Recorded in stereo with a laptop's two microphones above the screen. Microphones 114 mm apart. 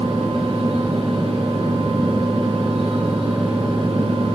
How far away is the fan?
About 5 m.